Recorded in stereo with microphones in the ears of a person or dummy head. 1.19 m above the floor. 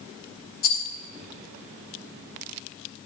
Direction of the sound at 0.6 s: 50° left (ahead or behind).